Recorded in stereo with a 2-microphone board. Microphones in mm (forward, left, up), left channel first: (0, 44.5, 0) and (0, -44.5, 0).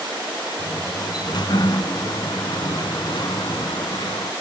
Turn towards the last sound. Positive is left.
turn(degrees=55)  # may be behind; listen again after turning